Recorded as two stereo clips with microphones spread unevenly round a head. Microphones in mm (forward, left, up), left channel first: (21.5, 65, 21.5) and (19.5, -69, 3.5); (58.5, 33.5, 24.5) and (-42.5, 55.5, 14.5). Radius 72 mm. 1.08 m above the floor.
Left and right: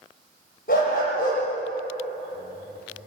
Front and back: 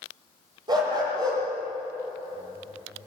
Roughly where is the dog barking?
Behind left.